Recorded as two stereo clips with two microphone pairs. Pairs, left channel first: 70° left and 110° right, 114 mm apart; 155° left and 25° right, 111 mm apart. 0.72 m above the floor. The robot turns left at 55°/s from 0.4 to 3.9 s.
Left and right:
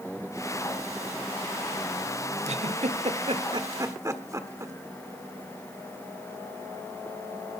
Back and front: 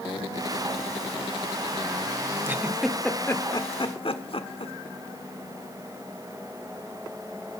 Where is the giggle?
90° right, 1.4 m; by 4.7 s 170° right, 1.4 m.